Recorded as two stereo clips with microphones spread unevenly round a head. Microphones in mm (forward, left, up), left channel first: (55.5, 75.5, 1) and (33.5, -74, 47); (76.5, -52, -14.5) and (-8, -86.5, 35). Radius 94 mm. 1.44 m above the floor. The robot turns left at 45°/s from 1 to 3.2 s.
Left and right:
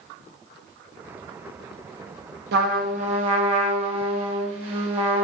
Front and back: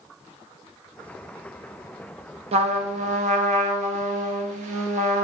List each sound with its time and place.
2.5 s a trumpet: 130° right, 0.7 m; by 5.2 s 165° right, 0.7 m